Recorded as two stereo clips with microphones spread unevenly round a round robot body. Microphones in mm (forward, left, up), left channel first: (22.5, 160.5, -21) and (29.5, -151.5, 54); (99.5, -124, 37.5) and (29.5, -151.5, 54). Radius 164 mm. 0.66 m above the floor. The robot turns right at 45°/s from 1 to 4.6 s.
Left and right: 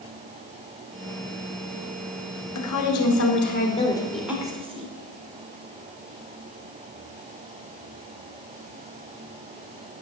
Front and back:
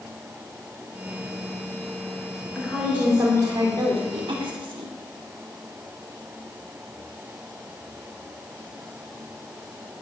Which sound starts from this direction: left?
A woman speaking, at 2.5 s.